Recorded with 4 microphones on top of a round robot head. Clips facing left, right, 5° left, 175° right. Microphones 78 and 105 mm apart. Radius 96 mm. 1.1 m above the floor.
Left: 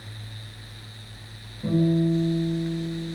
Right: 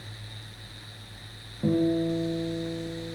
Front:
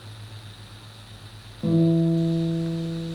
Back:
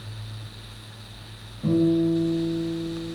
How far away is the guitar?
About 0.6 m.